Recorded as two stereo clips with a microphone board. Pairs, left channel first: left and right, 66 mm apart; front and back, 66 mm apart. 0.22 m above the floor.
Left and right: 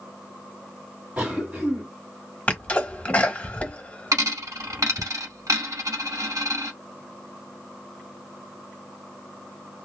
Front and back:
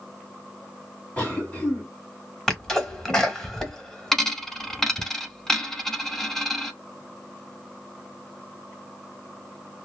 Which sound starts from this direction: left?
A sneeze, at 2.5 s.